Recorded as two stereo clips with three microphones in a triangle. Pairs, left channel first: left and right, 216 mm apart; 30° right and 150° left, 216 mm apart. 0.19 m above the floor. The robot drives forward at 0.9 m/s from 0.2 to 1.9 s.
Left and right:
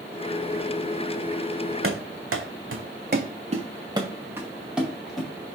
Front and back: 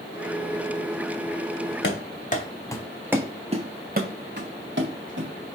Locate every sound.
1.8 s running footsteps: 70° right, 0.9 m; by 5.3 s straight behind, 1.6 m